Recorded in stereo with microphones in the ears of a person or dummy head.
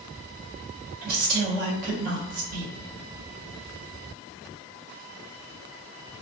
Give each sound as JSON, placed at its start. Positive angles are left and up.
{"t": 1.0, "sound": "a woman speaking", "side_deg": -50, "distance_m": 0.9}